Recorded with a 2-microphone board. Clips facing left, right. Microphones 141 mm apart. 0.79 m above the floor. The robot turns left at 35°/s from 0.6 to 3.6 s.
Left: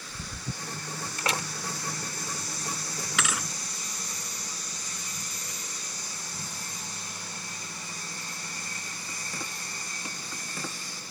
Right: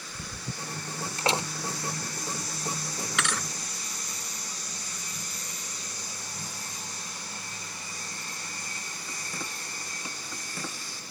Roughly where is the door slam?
Right.